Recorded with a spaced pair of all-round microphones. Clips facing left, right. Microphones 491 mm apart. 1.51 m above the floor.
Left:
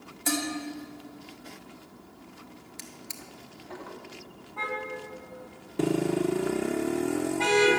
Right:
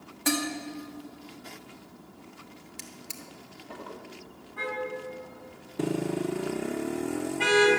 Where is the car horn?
35° right (ahead or behind), 5 m.